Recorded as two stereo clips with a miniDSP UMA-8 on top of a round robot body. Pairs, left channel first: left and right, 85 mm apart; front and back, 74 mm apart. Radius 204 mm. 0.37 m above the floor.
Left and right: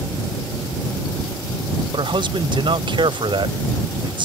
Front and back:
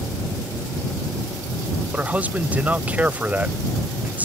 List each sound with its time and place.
1.9 s a man speaking: 110° right